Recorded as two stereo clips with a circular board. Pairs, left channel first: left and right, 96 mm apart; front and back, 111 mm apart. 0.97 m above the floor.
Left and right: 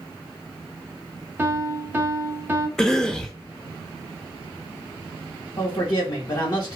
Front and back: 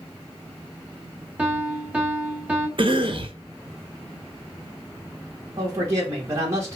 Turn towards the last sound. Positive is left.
turn(degrees=120)